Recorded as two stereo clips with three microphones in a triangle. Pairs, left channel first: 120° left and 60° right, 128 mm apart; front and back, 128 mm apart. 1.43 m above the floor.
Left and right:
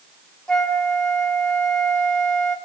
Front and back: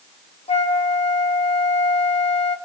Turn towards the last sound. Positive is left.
turn(degrees=35)